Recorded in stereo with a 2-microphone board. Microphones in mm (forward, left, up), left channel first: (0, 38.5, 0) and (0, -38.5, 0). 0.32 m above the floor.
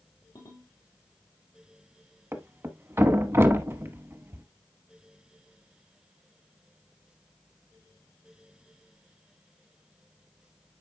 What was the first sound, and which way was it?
A ringtone, 55° left (ahead or behind).